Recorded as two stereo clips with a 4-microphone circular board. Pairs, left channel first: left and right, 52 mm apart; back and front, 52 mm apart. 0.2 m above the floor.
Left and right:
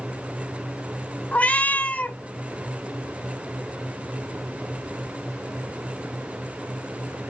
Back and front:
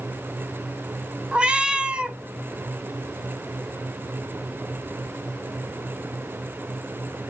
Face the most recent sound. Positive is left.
turn(degrees=55)